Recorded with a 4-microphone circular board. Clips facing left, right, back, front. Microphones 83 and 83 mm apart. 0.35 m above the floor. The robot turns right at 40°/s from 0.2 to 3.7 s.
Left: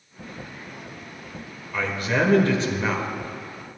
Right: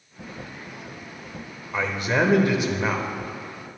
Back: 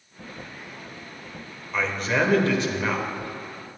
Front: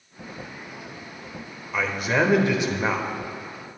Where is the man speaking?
80° right, 1.1 m; by 3.1 s 25° right, 1.1 m.